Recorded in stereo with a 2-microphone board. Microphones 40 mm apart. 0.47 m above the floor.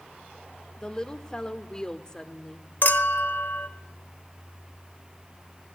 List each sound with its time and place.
0.8 s a woman speaking: 20° left (ahead or behind), 1.5 m
2.8 s a clink: 55° left (ahead or behind), 1.0 m